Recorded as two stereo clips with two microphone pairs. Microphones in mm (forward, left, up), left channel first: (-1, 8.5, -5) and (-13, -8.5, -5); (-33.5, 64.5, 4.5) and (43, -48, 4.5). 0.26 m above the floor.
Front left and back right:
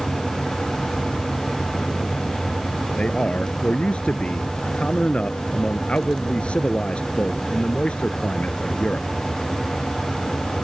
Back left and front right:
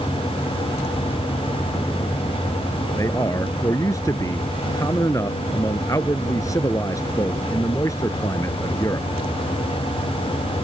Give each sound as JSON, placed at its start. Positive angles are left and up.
{"t": 3.0, "sound": "a man speaking", "azimuth_deg": 60}